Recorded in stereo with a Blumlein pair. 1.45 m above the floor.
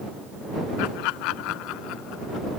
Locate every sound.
0.8 s laughter: 45° left; by 2.5 s 40° left